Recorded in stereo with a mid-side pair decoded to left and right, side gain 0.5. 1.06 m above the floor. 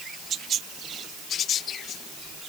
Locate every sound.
Only background noise.